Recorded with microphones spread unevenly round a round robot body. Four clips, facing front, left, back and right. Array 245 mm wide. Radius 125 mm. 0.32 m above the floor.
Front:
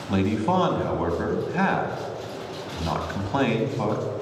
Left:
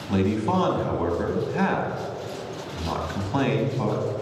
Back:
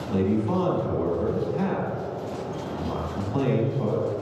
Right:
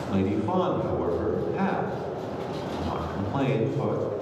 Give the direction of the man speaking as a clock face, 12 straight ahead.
12 o'clock.